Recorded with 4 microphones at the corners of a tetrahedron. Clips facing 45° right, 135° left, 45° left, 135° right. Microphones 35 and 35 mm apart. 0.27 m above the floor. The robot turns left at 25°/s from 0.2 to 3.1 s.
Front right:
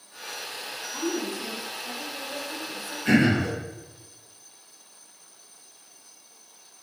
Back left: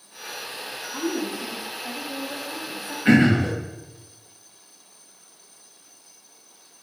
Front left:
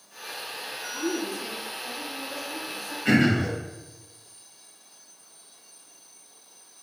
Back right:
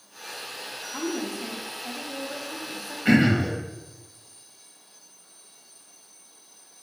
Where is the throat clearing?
155° left, 1.7 m; by 3.5 s 150° left, 1.7 m.